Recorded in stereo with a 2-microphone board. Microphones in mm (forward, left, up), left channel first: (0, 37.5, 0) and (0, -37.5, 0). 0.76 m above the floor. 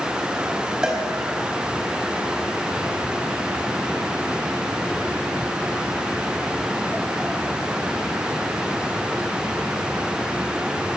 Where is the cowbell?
10° right (ahead or behind), 5 m.